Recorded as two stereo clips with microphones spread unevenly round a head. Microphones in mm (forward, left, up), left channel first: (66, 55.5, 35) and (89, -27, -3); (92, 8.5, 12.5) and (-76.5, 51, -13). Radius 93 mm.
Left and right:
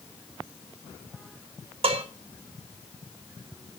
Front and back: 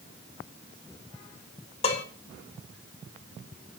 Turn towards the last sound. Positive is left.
turn(degrees=-75)